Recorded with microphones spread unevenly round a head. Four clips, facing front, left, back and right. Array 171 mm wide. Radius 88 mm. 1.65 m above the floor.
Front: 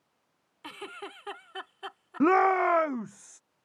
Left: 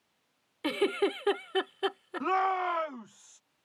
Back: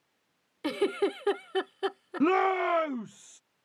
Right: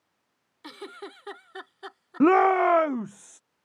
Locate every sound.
0.6 s a giggle: 145° left
2.2 s a shout: 90° right